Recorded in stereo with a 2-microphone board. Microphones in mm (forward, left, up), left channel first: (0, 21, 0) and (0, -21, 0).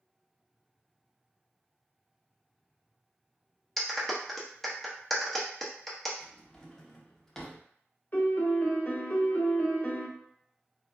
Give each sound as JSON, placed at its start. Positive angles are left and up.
{"t": 3.8, "sound": "a clap", "side_deg": 5, "distance_m": 0.6}
{"t": 6.2, "sound": "a drawer", "side_deg": 15, "distance_m": 0.5}
{"t": 8.1, "sound": "a piano", "side_deg": 45, "distance_m": 0.5}